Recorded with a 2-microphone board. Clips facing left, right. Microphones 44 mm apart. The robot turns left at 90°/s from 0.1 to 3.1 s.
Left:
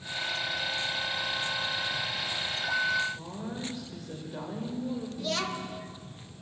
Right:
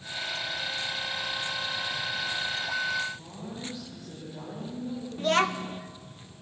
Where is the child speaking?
45° right (ahead or behind), 1.1 m.